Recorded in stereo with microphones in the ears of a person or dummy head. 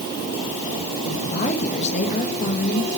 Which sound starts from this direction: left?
A woman speaking, at 1.1 s.